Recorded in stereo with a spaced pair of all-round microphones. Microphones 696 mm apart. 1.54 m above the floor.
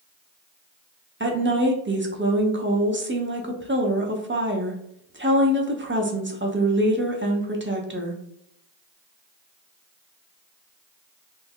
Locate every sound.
1.2 s a woman speaking: 20° right (ahead or behind), 0.6 m